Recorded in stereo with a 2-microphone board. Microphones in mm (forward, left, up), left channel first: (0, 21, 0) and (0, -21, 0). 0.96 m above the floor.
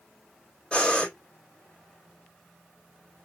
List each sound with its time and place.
0.7 s breathing: 25° left (ahead or behind), 2.5 m